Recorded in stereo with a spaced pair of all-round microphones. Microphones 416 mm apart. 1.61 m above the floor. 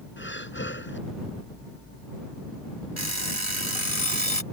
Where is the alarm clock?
65° right (ahead or behind).